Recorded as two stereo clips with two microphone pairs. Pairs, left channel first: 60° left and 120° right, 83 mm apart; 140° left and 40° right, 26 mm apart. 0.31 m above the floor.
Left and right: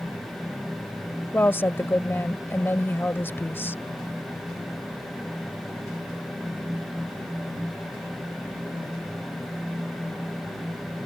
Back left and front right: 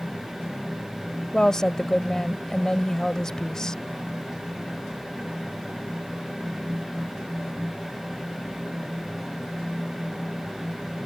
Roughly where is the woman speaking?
Left.